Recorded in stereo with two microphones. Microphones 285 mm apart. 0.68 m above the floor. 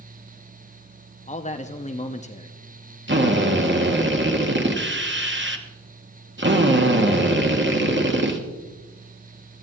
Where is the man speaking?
25° left (ahead or behind), 0.7 m.